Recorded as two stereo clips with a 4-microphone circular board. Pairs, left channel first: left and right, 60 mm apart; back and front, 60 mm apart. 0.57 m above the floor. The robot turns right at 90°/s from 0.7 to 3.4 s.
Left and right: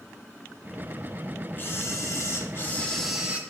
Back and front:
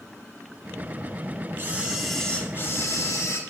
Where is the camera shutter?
45° left, 1.3 m; by 3.4 s 150° right, 1.3 m.